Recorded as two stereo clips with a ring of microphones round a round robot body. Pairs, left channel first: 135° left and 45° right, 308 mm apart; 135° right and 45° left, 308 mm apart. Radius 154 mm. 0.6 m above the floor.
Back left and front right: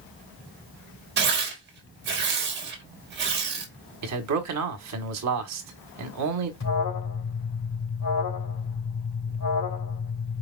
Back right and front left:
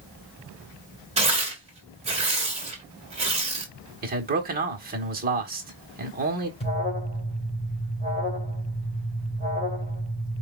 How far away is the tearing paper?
About 1.5 m.